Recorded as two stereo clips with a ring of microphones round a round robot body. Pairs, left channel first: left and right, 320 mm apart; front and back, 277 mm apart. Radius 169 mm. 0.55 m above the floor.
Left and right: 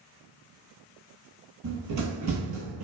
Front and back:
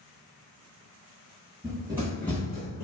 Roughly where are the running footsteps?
Right.